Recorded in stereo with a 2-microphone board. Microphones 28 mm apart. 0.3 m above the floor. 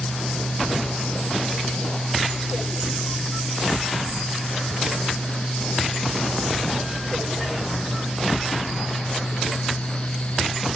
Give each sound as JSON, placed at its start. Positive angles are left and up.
{"t": 4.7, "sound": "ticking", "side_deg": 55}